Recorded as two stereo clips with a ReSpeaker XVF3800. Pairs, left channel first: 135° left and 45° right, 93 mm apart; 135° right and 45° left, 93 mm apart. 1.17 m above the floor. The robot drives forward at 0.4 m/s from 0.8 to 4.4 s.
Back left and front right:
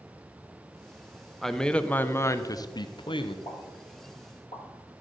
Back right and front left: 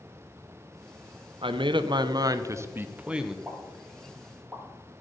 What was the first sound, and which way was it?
A man speaking, 50° left.